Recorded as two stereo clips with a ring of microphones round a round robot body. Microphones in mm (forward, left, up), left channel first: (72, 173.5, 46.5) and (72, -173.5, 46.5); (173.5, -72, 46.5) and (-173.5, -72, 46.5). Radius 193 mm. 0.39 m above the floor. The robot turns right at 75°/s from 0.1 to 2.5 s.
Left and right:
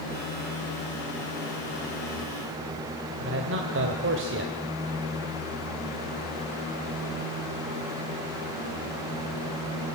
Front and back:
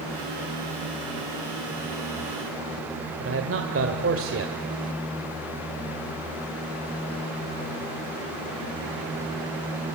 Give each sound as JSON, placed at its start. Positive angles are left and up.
{"t": 3.2, "sound": "a man speaking", "azimuth_deg": -140, "distance_m": 2.0}